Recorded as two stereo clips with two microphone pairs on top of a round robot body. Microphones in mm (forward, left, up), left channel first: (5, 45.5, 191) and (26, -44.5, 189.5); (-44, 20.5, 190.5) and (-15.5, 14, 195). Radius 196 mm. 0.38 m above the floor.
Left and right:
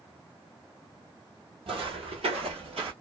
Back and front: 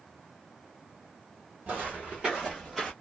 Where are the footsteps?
55° right, 1.1 m; by 2.9 s 110° right, 0.8 m.